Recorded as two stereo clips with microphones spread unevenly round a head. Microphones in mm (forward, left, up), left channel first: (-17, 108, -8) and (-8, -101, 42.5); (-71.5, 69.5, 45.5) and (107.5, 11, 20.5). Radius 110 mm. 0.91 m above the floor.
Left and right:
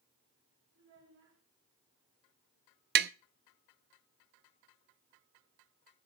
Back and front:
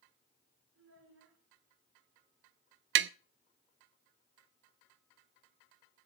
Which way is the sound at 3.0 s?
40° right.